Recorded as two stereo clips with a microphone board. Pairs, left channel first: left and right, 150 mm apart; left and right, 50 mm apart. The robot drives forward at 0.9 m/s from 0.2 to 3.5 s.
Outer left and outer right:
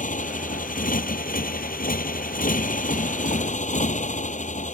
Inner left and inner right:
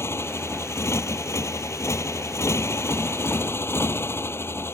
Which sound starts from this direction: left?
A motorcycle, at 0.0 s.